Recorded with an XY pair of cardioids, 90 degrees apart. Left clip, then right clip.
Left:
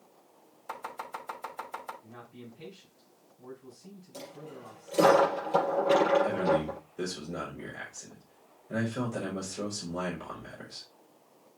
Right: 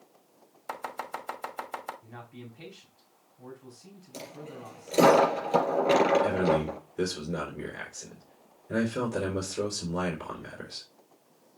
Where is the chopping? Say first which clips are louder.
Right 3 dB; 50° right, 2.5 m.